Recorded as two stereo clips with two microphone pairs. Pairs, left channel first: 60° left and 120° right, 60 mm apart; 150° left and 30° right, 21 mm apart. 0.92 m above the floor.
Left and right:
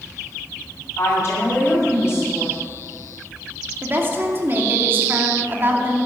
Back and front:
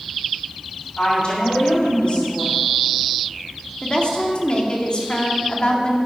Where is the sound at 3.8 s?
170° right, 2.5 m.